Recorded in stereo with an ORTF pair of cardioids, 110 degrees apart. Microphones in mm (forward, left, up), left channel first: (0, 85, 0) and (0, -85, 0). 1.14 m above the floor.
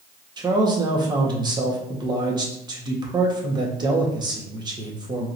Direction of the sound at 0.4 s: 25° right.